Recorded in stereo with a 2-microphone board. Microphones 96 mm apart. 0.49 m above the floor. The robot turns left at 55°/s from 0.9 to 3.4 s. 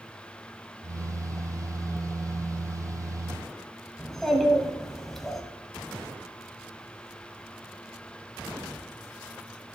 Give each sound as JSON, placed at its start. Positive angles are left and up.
{"t": 4.0, "sound": "a child speaking", "side_deg": 5, "distance_m": 1.8}